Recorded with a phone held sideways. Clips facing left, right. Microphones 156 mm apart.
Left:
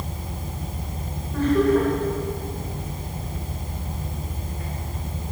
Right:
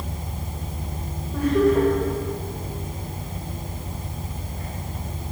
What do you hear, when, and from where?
1.3 s laughter: 10° right (ahead or behind), 7 m